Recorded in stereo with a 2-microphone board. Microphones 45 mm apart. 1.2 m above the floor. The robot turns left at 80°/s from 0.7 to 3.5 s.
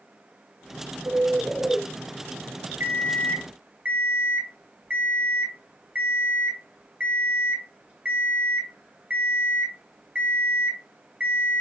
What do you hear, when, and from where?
1.1 s a bird: 125° right, 2.0 m; by 1.8 s 170° left, 2.0 m
2.8 s an alarm clock: 90° right, 1.1 m; by 11.6 s 145° right, 1.1 m